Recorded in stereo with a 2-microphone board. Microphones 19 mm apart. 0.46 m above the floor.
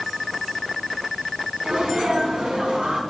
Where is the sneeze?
60° right (ahead or behind), 3.5 m.